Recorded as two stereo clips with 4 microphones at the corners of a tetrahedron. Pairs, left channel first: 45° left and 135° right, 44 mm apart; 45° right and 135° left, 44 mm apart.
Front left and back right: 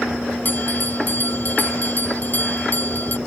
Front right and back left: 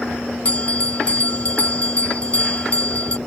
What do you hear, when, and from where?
0.5 s a bell: 5° left